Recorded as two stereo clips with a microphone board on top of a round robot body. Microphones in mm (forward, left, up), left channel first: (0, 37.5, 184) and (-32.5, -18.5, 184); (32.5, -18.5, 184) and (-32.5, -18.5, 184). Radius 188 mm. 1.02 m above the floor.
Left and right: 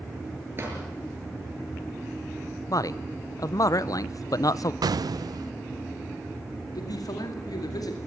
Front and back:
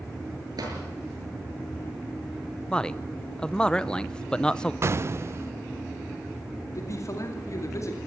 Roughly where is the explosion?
Behind right.